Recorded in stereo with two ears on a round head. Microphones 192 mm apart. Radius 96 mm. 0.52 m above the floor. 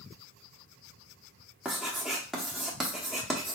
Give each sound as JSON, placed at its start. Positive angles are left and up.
{"t": 1.6, "sound": "writing", "side_deg": -5, "distance_m": 0.9}